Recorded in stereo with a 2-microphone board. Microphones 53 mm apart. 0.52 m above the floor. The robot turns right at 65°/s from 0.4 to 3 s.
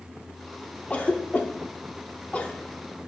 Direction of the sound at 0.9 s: 25° left (ahead or behind).